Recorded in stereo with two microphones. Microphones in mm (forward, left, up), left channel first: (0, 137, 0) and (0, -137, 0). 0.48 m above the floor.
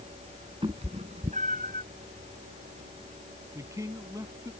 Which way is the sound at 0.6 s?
20° right (ahead or behind).